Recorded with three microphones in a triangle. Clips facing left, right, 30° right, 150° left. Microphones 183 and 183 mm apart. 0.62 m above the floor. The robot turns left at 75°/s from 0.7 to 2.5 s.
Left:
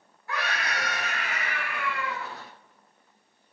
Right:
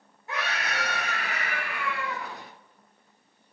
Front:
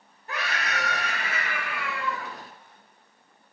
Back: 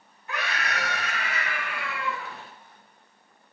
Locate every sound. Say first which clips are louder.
0.3 s a scream: left 1 dB, even; 35° right, 1.1 m; by 2.3 s 155° right, 1.1 m